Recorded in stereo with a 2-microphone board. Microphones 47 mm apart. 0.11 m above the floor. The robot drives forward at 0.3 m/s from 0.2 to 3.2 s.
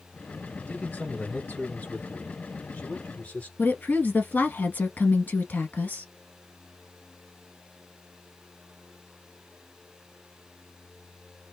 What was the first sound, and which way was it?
A man speaking, 35° left (ahead or behind).